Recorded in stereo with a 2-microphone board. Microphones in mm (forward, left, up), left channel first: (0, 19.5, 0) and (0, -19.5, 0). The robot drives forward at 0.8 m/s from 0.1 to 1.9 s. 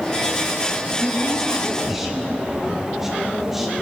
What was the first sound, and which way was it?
A woman speaking, 10° right (ahead or behind).